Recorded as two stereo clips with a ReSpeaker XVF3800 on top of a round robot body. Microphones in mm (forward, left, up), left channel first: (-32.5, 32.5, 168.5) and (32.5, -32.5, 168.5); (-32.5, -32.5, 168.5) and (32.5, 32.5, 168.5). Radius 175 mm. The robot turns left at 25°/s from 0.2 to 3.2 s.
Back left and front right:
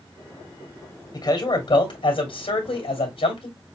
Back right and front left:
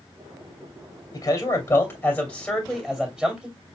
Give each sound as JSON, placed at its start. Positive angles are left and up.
{"t": 1.1, "sound": "a man speaking", "azimuth_deg": 180, "distance_m": 2.5}